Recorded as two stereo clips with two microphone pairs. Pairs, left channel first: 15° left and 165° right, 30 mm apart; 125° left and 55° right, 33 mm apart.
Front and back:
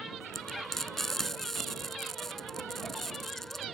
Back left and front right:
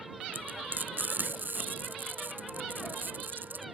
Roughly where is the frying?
Ahead right.